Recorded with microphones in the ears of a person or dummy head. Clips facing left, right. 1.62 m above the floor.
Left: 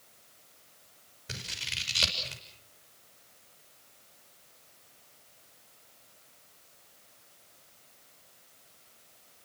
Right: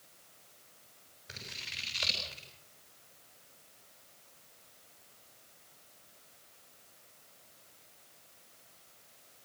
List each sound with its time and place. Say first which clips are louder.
1.3 s scissors: left 5 dB; 40° left (ahead or behind), 7 m